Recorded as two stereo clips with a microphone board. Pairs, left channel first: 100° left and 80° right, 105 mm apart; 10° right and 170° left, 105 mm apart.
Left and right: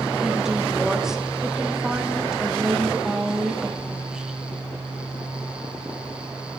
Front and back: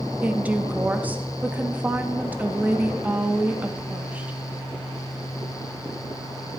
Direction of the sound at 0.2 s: 150° right.